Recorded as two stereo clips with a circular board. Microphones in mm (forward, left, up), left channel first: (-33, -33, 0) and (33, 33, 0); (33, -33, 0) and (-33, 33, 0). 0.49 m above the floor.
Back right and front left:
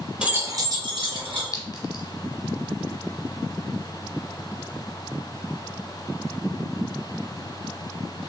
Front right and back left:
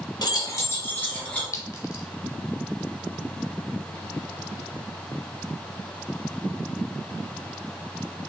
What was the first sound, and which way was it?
Keys jangling, 35° right.